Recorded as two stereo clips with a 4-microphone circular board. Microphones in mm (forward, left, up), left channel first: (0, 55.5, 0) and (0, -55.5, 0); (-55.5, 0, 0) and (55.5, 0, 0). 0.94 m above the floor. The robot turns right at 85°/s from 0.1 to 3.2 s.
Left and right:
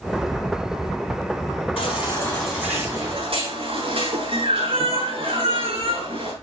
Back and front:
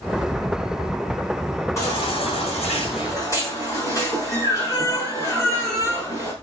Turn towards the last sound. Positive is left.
turn(degrees=-120)